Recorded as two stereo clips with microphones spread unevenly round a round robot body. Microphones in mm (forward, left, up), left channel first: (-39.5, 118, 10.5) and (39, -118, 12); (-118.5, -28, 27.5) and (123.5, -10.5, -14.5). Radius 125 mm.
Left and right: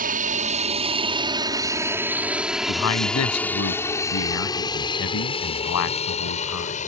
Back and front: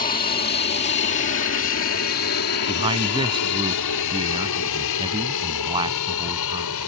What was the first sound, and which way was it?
An aircraft, 120° right.